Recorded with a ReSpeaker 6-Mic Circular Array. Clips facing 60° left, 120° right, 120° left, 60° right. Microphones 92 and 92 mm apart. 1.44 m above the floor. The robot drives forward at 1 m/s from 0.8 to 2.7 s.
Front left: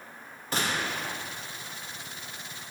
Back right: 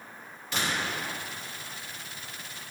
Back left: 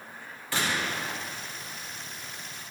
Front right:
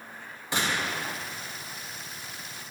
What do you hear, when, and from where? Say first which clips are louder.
0.5 s a gunshot: front left 1 dB, even; 10° left, 1.8 m; by 1.1 s 15° left, 1.5 m